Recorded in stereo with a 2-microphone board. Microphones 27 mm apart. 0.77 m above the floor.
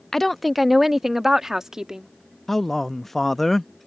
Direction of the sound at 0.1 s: 15° left (ahead or behind).